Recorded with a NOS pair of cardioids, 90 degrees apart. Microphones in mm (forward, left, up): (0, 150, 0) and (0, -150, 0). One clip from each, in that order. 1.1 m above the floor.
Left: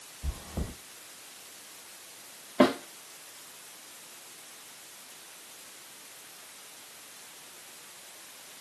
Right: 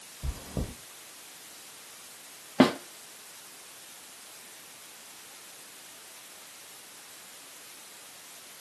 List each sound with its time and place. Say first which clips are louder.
0.2 s chewing: right 2 dB; 30° right, 1.2 m
2.6 s a snare drum: even; 20° right, 0.6 m